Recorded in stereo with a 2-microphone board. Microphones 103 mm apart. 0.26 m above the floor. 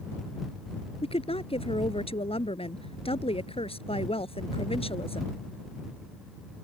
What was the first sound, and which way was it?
A woman speaking, 70° left (ahead or behind).